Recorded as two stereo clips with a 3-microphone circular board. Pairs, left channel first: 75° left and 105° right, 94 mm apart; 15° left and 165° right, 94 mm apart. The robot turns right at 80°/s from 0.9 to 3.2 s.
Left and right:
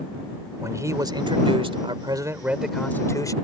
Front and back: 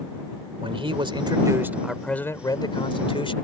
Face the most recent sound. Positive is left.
turn(degrees=25)